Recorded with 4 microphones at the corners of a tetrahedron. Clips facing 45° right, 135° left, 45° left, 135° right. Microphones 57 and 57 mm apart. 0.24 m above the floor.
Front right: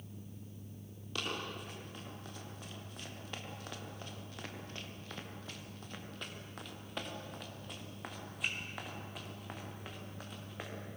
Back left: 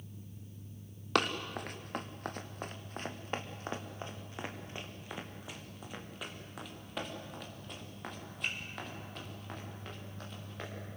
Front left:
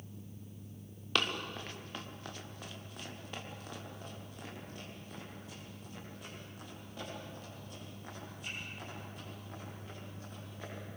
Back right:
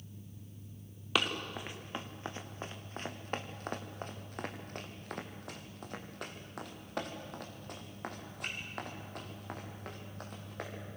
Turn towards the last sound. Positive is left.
turn(degrees=-125)